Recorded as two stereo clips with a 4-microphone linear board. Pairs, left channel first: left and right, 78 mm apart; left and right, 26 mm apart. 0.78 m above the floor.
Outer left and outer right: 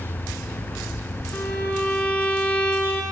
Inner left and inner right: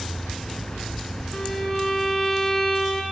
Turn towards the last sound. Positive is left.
turn(degrees=20)  # may be behind; listen again after turning